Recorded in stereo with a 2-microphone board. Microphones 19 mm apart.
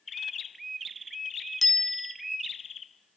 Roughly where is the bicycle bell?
Centre.